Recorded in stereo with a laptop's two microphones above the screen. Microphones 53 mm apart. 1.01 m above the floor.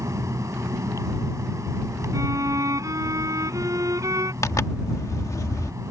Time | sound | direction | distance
0.0 | a fan | 70° right (ahead or behind) | ?
2.1 | a violin | 80° right | ?
4.4 | a zipper | 80° left | ?